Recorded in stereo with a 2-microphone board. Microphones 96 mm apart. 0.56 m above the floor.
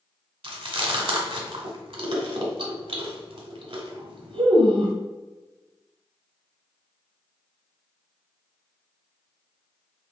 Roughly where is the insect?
I don't hear an insect.